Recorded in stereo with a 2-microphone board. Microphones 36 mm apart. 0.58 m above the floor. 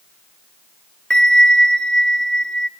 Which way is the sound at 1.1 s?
20° left (ahead or behind).